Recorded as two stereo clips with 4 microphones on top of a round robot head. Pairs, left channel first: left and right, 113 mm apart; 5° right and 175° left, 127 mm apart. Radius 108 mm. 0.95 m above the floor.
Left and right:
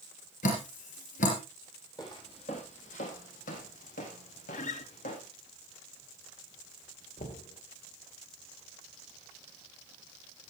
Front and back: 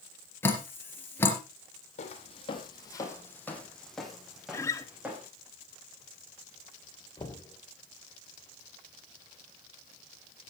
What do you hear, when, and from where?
0.4 s dripping: 65° left, 3.5 m
2.0 s footsteps: 25° left, 2.5 m; by 5.3 s 95° left, 4.5 m
4.5 s a guitar: 60° left, 1.2 m
7.2 s knocking: 55° left, 2.5 m